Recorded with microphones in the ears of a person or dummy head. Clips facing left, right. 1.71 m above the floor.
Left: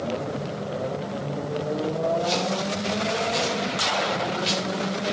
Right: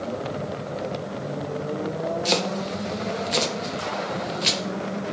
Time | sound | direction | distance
2.2 | chopping | 70° right (ahead or behind) | 1.9 m